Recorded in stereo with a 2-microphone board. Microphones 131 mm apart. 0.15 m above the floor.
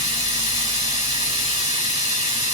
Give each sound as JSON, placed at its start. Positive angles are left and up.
{"t": 0.0, "sound": "running water", "side_deg": -50, "distance_m": 1.9}